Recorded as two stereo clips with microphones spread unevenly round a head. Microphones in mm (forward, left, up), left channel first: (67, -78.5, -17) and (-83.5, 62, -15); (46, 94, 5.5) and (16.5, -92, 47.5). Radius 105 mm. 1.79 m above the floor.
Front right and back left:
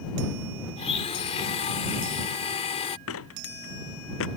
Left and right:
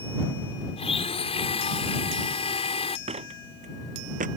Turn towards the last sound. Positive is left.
turn(degrees=-60)